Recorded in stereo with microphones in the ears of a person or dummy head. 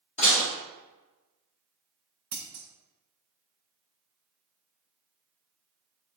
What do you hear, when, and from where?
0.2 s dishes clattering: 35° left (ahead or behind), 1.5 m
2.3 s scissors: 25° right (ahead or behind), 0.7 m